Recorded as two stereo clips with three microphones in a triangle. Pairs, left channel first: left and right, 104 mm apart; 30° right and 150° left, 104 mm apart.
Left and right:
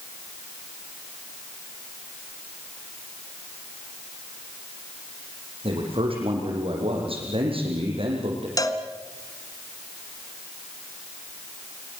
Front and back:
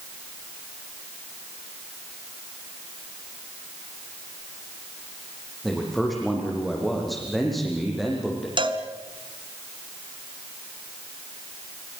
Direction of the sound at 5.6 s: 120° right.